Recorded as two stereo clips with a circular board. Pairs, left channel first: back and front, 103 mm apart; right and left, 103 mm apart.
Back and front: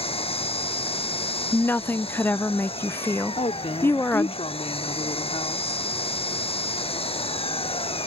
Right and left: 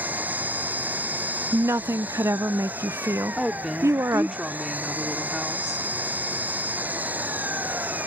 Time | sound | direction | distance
0.0 | an engine running | 165° left | ?
1.5 | a woman speaking | 130° left | ?
3.4 | a woman speaking | 175° left | ?